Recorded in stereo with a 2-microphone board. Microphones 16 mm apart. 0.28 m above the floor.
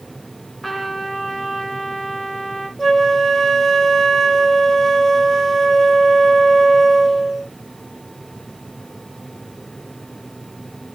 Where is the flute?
15° left (ahead or behind), 1.3 m.